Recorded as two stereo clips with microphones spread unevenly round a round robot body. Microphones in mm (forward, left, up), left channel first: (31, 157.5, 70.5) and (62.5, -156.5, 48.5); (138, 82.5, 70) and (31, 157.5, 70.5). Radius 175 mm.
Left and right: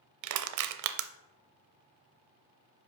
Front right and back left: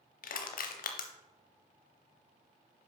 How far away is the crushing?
About 0.6 m.